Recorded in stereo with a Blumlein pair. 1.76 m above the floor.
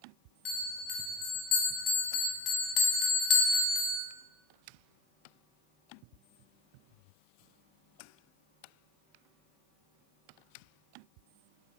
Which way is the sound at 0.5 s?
40° left.